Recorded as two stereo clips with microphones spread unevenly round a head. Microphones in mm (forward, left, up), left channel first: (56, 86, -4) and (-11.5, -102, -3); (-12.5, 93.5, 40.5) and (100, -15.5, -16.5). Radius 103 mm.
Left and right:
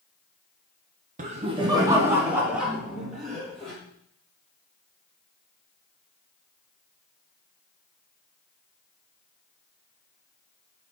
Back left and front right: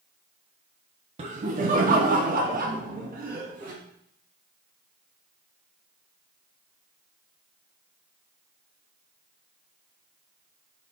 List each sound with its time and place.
1.2 s laughter: 65° right, 0.7 m; by 3.7 s 15° right, 3 m